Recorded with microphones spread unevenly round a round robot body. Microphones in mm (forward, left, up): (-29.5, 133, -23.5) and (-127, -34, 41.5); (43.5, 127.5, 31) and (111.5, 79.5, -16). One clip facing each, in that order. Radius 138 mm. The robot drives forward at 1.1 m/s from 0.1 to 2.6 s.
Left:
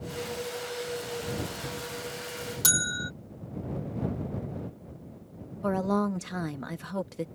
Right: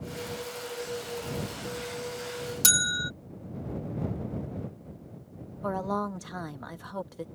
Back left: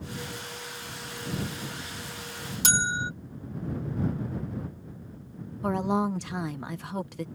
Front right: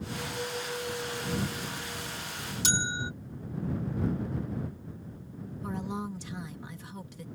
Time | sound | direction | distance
2.6 | a bell | 175° left | ?
5.6 | a woman speaking | 110° left | ?